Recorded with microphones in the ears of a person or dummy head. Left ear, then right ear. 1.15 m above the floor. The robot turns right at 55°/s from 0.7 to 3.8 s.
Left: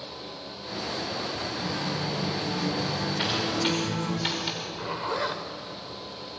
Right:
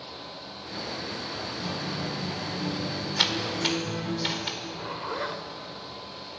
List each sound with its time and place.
1.6 s a guitar: 10° right, 6 m; by 4.2 s 110° left, 6 m
3.2 s typing on a keyboard: 40° right (ahead or behind), 4.5 m; by 4.5 s 10° right (ahead or behind), 4.5 m
4.6 s a zipper: 10° left (ahead or behind), 1.6 m